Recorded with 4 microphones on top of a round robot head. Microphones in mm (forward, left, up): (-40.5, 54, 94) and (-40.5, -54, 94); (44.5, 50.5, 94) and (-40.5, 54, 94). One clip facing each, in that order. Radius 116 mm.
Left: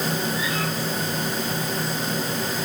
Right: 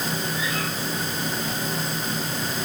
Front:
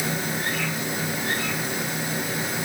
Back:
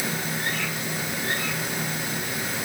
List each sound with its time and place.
Only background noise.